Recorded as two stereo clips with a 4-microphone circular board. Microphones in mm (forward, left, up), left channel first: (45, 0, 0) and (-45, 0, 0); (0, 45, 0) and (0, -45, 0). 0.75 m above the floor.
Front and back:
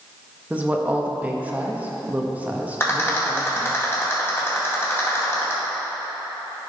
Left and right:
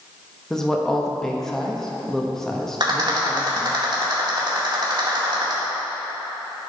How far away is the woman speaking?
About 0.9 m.